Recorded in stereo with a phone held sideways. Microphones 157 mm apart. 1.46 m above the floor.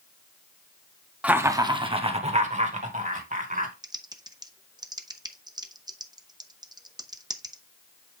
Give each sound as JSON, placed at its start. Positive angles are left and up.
{"t": 1.2, "sound": "laughter", "side_deg": -10, "distance_m": 0.8}
{"t": 3.8, "sound": "typing on a keyboard", "side_deg": -25, "distance_m": 0.7}